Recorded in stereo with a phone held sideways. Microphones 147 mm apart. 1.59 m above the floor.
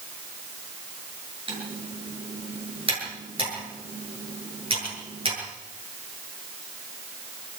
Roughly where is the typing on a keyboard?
Right.